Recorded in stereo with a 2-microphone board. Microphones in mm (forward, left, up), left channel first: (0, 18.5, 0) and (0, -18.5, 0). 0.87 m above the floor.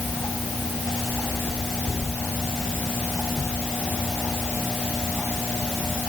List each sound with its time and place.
Only background noise.